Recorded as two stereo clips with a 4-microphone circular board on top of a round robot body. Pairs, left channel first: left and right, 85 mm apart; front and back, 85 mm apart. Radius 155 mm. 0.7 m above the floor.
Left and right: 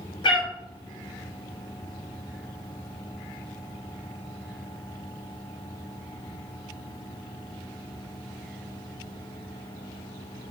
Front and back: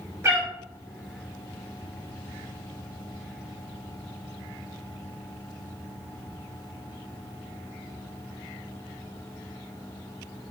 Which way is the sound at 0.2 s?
120° left.